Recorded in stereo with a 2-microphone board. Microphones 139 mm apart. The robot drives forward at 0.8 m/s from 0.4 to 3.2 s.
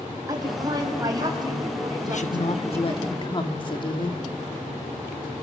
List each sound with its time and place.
0.3 s a woman speaking: 25° right (ahead or behind), 6 m; by 3.1 s 35° right (ahead or behind), 4.5 m
2.1 s a woman speaking: 60° left (ahead or behind), 1.2 m; by 4.2 s 35° left (ahead or behind), 1.8 m